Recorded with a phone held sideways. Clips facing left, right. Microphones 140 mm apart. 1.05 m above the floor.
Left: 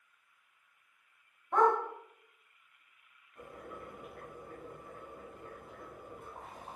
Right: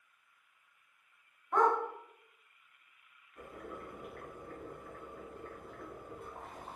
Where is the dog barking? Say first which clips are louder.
Left 2 dB; 30° left (ahead or behind), 1.6 m.